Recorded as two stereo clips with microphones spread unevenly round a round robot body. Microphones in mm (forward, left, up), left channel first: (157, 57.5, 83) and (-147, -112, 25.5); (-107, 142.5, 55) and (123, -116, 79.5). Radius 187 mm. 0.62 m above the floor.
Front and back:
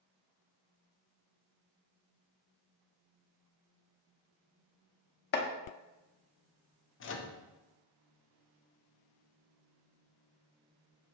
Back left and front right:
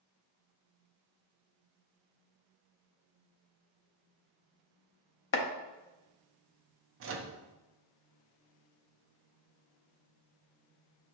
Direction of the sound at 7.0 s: 20° right.